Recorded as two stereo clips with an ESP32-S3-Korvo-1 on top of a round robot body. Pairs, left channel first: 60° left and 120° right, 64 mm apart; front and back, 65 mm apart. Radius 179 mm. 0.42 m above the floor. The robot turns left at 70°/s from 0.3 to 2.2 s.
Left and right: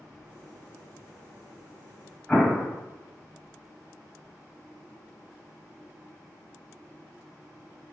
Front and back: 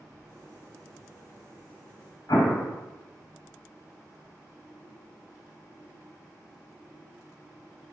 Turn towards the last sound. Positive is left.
turn(degrees=-15)